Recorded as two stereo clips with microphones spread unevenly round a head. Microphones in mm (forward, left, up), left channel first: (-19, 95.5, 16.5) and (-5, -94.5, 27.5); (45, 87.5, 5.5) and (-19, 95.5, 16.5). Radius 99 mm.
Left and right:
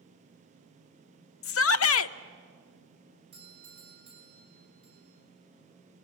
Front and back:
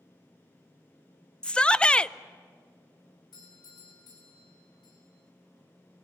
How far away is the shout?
About 0.7 m.